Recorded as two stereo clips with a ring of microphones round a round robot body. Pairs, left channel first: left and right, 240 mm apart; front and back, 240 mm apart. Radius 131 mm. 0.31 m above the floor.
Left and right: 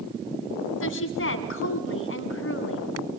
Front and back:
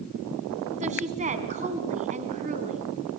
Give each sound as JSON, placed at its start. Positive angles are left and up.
{"t": 0.8, "sound": "a woman speaking", "azimuth_deg": 120, "distance_m": 3.0}